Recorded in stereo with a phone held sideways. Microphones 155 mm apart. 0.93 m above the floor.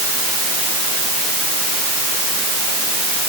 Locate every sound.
Only background noise.